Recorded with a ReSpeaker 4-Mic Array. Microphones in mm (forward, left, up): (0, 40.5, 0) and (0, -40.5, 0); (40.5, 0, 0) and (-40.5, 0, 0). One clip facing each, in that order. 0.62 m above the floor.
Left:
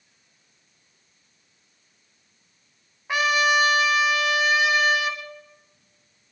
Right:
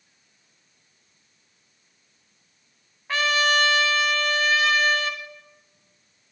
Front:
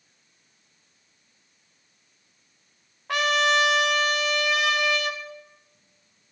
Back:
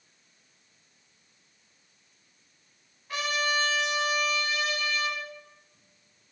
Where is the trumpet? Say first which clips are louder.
Left 1 dB, front 7 dB; 15° left, 1.0 m.